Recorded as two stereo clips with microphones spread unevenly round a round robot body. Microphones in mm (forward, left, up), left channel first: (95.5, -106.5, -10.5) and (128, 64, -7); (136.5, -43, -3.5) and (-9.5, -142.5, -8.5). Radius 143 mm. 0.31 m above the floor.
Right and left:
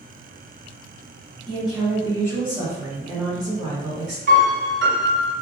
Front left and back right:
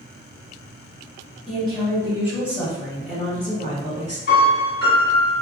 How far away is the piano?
About 1.2 m.